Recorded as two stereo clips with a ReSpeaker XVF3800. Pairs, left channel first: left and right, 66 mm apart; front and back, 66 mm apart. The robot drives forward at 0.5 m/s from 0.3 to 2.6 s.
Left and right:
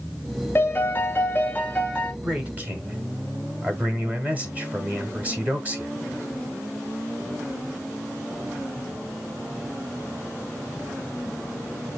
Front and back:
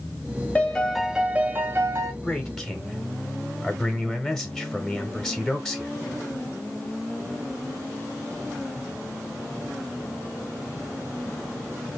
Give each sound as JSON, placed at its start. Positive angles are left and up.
{"t": 0.6, "sound": "a piano", "azimuth_deg": 60, "distance_m": 0.5}
{"t": 2.2, "sound": "a man speaking", "azimuth_deg": -60, "distance_m": 1.2}